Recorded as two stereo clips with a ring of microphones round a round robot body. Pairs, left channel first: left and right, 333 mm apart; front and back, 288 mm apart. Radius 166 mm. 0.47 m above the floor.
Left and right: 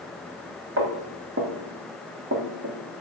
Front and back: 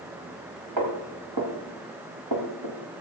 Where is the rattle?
I don't hear a rattle.